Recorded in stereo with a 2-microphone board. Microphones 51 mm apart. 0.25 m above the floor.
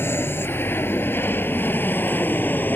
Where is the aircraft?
45° left (ahead or behind); by 2.8 s 35° left (ahead or behind).